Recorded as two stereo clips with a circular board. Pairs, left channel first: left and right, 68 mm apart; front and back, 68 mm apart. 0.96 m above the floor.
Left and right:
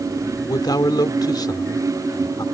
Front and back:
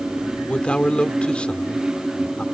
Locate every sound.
0.5 s a man speaking: 75° left